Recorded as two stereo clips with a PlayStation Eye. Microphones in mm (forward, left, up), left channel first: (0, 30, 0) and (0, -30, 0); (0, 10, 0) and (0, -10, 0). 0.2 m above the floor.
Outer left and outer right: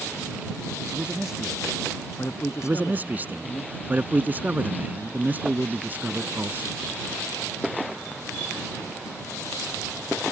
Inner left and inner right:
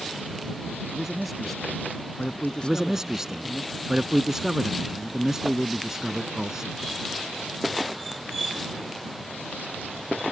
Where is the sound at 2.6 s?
30° right (ahead or behind).